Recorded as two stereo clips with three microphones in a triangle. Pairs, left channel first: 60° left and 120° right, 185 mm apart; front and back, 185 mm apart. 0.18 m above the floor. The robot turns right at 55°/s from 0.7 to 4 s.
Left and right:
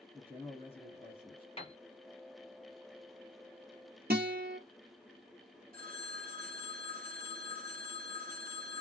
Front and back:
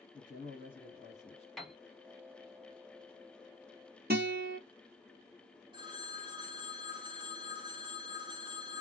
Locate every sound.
0.1 s a man speaking: 20° left, 1.9 m; by 1.5 s 60° left, 1.9 m
1.6 s a piano: 85° left, 1.1 m; by 1.8 s 95° left, 1.1 m
4.1 s a guitar: 150° right, 1.2 m
5.7 s a phone ringing: 125° right, 1.4 m